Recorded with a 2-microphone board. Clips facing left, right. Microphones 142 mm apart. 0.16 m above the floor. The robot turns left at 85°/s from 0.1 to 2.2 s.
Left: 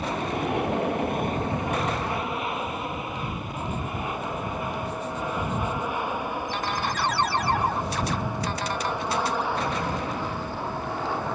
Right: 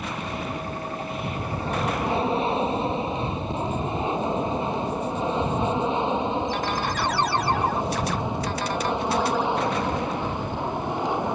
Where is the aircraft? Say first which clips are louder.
Left 4 dB; 35° left (ahead or behind); by 11.4 s 20° right (ahead or behind).